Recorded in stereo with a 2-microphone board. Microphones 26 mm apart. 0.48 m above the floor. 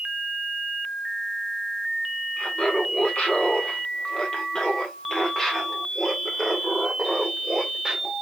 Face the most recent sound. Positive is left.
turn(degrees=-5)  # may be behind; listen again after turning